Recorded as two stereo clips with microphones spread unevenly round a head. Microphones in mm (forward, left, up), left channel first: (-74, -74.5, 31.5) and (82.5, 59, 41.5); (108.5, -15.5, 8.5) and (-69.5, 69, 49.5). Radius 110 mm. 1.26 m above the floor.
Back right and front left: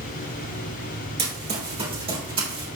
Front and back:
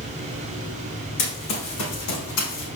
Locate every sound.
1.2 s running footsteps: 20° right, 4 m; by 2.7 s 25° right, 3 m